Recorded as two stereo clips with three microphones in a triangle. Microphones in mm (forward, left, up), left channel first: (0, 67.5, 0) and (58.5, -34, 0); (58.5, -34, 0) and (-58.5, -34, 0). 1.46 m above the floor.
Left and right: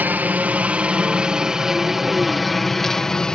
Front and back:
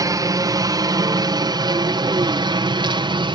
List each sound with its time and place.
0.0 s a helicopter: 130° right; by 3.3 s 155° right